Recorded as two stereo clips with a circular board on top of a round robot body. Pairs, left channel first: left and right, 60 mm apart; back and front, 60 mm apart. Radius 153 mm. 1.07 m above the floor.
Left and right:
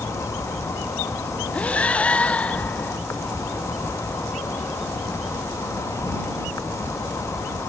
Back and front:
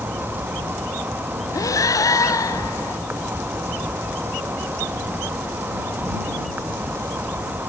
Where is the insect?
55° left.